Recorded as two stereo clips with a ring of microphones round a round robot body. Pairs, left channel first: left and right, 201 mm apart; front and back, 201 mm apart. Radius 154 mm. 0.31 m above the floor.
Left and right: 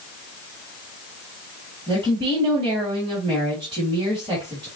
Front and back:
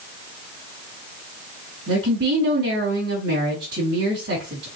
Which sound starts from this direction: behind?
A woman speaking, at 1.9 s.